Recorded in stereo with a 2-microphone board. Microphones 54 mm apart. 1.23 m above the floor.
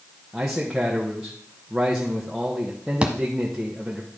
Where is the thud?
20° right (ahead or behind), 1.1 m.